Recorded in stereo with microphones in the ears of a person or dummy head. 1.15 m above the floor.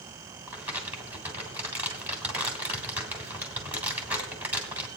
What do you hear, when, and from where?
0.5 s crumpling: 10° right (ahead or behind), 2.5 m